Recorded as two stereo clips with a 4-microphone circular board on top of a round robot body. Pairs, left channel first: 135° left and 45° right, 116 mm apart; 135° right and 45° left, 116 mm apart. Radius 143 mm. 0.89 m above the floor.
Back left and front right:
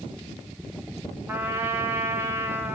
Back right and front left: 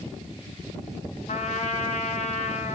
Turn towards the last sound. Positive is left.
turn(degrees=-115)